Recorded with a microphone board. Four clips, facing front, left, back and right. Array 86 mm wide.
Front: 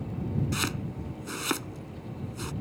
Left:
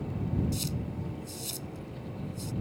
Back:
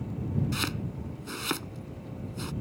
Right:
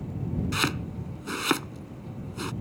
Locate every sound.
0.5 s chopping: 85° right